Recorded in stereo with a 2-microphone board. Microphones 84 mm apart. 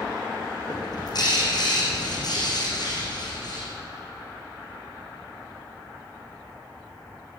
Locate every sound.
0.7 s a bird: 55° left (ahead or behind), 7 m